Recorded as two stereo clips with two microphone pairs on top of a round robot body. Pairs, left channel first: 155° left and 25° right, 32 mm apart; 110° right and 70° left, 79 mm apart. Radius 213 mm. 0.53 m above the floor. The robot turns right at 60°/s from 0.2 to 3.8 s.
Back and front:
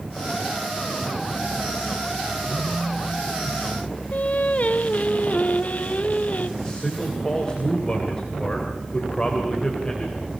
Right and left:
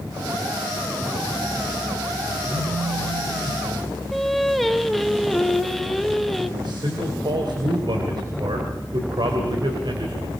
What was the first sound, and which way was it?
A phone buzzing, 5° left.